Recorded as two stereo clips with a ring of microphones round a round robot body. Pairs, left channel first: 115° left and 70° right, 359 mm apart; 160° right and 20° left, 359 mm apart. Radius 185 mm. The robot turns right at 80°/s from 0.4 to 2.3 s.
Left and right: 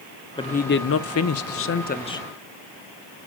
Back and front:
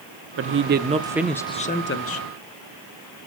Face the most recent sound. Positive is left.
turn(degrees=-165)